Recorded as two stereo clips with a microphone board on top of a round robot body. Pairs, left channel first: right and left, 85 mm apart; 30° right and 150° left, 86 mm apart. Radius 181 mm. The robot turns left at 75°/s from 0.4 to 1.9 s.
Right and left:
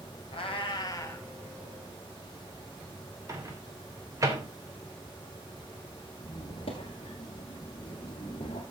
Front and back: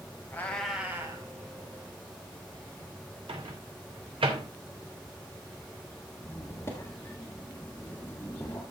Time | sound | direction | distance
0.3 | a cat meowing | 100° right | 1.6 m
3.3 | a microwave | 145° left | 2.5 m
6.2 | a squeak | 90° right | 1.2 m